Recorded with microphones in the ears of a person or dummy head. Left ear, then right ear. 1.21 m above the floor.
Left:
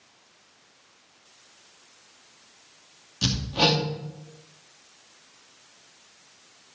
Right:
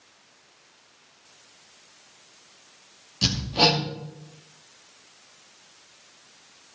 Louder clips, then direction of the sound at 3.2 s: Right 2 dB; 10° left (ahead or behind).